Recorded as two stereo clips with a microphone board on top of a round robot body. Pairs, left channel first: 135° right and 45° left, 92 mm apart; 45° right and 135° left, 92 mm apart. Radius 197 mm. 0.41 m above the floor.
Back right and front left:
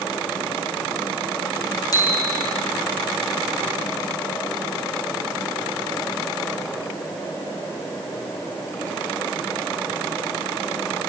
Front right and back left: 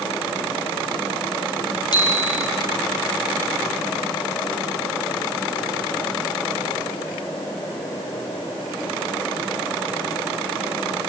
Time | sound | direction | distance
1.9 | a bicycle bell | 85° right | 6 m